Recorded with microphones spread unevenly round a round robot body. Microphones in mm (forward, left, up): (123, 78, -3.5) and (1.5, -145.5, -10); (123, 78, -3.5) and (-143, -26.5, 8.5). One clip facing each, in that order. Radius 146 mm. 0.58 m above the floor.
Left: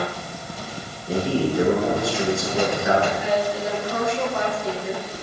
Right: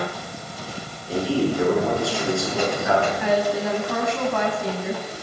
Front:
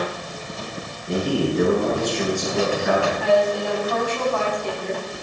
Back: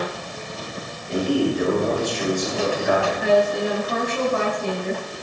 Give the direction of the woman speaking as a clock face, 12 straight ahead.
3 o'clock.